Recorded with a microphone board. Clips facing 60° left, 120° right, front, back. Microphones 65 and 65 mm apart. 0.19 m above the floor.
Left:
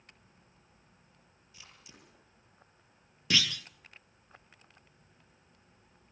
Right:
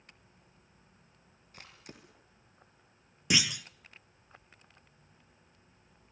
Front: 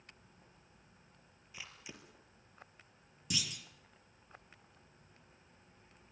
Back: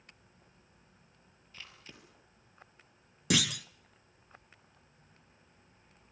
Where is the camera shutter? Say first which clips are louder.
Right 5 dB, front 1 dB; 80° right, 4.5 m.